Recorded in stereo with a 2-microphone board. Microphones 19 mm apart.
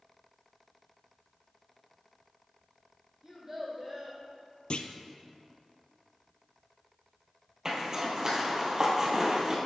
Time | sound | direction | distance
3.2 | a child speaking | 25° right (ahead or behind) | 2.5 m
4.7 | a clunk | 55° left (ahead or behind) | 0.6 m
7.7 | a zipper | 30° right (ahead or behind) | 1.8 m